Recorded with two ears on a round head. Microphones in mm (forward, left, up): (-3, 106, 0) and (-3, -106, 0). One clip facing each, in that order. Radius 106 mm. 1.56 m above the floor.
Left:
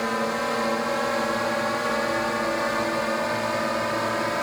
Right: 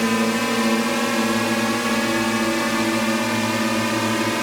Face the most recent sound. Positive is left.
turn(degrees=-45)  # may be behind; listen again after turning